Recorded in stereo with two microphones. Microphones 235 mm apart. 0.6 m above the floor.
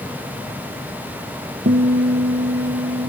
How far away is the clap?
No clap in this recording.